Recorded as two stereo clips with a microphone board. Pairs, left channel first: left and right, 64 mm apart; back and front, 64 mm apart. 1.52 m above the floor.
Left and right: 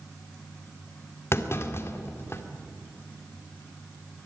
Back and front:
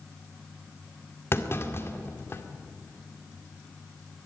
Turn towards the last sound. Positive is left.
turn(degrees=135)